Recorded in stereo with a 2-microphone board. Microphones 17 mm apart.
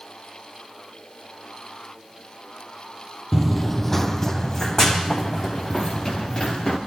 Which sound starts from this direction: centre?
Running footsteps, at 3.3 s.